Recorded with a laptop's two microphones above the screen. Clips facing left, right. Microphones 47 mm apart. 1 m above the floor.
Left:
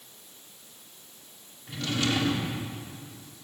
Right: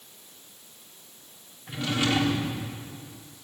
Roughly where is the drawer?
Centre.